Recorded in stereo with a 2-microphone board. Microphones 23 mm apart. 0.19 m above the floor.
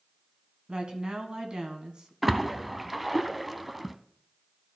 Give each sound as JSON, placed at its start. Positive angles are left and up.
{"t": 0.7, "sound": "a woman speaking", "side_deg": -40, "distance_m": 1.5}
{"t": 2.2, "sound": "a splash", "side_deg": -5, "distance_m": 0.5}